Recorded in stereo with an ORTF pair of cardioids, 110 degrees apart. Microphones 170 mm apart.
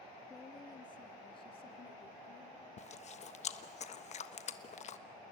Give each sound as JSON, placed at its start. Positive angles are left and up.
{"t": 0.3, "sound": "a woman speaking", "azimuth_deg": 20, "distance_m": 2.0}
{"t": 2.8, "sound": "chewing", "azimuth_deg": 45, "distance_m": 1.3}